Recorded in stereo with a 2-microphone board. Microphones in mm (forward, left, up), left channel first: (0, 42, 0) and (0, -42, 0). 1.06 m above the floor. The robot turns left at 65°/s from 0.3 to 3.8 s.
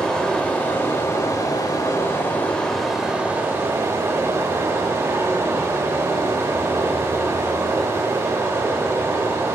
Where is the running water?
165° left, 0.9 m; by 9.6 s 60° right, 0.9 m.